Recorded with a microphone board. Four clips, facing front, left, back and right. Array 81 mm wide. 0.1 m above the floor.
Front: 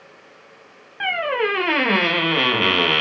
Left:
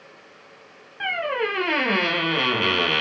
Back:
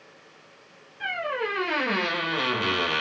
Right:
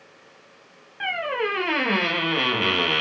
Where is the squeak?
Straight ahead, 0.5 m.